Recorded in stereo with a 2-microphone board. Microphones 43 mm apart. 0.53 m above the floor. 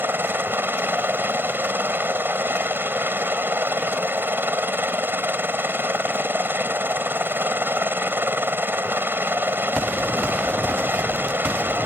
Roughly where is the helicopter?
Right.